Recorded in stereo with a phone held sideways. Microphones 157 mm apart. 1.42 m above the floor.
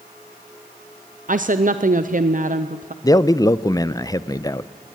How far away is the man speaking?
About 0.5 m.